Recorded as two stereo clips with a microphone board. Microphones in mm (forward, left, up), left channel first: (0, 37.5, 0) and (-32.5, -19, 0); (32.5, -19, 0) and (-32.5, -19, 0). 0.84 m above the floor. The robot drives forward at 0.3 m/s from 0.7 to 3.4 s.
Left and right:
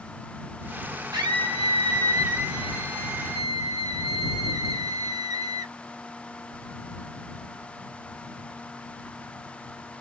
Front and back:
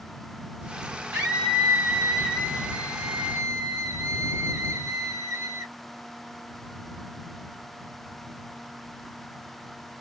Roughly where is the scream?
Behind right.